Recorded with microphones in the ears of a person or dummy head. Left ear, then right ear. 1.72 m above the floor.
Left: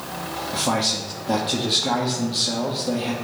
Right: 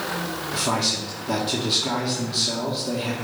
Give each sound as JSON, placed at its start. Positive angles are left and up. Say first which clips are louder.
{"t": 0.5, "sound": "a man speaking", "louder": "left 1 dB", "side_deg": 20, "distance_m": 1.1}